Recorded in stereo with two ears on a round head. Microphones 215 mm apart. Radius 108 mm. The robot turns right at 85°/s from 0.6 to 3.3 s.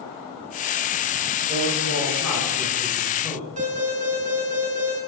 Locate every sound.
1.5 s a man speaking: 145° right, 5.5 m; by 3.5 s 5° left, 5.5 m
3.6 s an alarm: 30° right (ahead or behind), 9 m